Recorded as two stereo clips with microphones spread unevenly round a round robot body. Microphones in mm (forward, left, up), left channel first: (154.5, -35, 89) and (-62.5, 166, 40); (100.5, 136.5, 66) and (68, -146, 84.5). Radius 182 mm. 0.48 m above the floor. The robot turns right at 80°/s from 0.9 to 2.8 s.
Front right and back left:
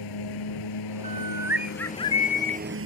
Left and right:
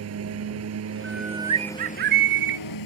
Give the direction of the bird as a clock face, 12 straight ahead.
7 o'clock.